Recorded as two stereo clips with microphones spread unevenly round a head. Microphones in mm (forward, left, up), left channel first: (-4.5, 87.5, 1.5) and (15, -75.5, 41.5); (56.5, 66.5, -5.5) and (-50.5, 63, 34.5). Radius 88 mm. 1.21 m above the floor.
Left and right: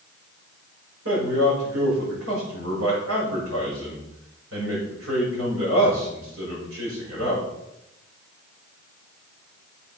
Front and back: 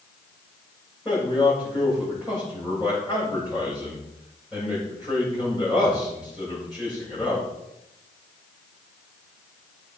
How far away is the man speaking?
About 6.5 m.